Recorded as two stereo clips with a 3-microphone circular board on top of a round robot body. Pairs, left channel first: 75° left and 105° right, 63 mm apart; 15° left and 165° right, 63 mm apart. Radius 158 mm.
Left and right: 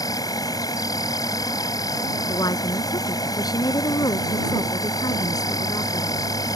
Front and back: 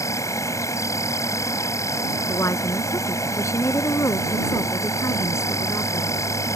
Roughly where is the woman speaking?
Ahead left.